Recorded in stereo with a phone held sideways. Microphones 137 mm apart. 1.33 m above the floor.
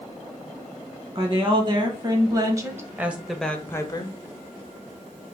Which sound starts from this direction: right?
A woman speaking, at 1.1 s.